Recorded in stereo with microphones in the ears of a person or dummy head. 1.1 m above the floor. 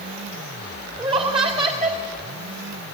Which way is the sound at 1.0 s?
25° right (ahead or behind).